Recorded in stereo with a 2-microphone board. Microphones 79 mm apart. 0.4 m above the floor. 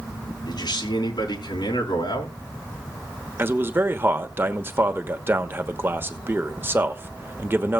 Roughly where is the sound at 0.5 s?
Left.